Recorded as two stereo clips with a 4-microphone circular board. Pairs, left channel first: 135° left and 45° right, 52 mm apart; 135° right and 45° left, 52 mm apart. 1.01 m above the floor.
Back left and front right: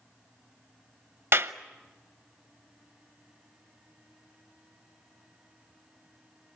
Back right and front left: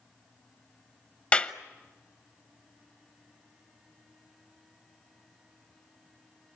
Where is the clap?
75° right, 0.9 m.